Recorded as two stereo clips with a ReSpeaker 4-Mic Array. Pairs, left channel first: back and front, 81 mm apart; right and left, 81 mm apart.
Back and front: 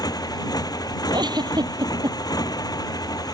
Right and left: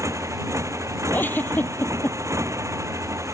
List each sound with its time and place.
0.0 s a motorcycle: 145° left
1.1 s a giggle: 25° right